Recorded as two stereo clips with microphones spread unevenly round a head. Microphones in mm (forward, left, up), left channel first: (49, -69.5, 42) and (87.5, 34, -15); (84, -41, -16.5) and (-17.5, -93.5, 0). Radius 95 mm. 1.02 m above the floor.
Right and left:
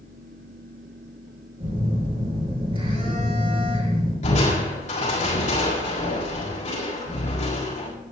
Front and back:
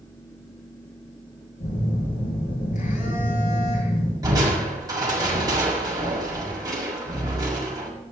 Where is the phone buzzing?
30° left, 8 m.